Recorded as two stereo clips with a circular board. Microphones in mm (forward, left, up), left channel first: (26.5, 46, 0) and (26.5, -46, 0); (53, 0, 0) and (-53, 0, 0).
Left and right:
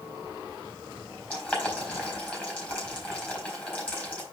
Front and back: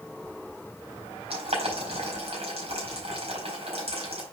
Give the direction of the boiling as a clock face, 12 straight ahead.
7 o'clock.